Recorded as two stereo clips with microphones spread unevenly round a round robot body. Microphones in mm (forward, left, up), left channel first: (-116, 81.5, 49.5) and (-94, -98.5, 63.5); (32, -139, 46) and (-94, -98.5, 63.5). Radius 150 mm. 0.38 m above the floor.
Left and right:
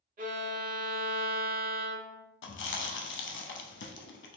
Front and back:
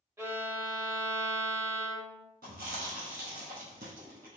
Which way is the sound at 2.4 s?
110° left.